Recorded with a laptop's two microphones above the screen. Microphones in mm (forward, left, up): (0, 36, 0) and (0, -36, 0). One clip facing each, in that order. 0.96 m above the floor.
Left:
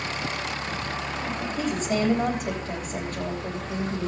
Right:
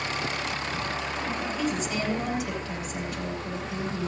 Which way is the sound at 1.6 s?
45° left (ahead or behind).